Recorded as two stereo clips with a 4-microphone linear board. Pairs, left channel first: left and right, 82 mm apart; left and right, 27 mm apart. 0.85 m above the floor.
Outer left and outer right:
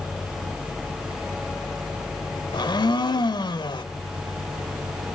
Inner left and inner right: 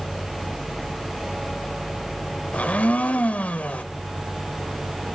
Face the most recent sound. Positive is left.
turn(degrees=70)  # may be behind; listen again after turning